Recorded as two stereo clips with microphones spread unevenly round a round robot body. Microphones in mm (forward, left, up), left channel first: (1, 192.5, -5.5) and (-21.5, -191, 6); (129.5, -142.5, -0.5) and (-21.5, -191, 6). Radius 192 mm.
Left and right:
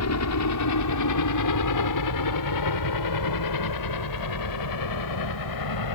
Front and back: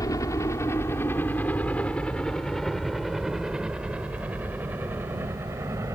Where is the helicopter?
80° left; by 6.0 s 120° left.